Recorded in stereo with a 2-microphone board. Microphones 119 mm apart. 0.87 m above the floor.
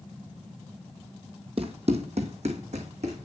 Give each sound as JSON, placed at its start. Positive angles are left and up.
{"t": 1.6, "sound": "running footsteps", "side_deg": -55, "distance_m": 1.4}